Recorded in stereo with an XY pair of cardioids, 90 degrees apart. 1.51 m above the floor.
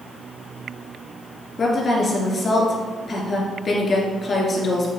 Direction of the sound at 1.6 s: 50° left.